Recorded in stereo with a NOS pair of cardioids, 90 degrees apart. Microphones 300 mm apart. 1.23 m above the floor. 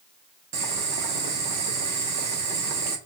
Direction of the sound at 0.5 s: 60° right.